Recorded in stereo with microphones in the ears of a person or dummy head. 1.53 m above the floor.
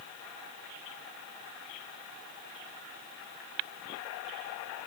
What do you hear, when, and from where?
Only background noise.